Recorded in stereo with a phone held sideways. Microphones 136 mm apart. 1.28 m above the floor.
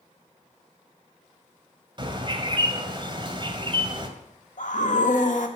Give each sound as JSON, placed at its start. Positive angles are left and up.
{"t": 2.0, "sound": "a bird", "side_deg": -35, "distance_m": 1.8}
{"t": 4.6, "sound": "a scream", "side_deg": 70, "distance_m": 2.0}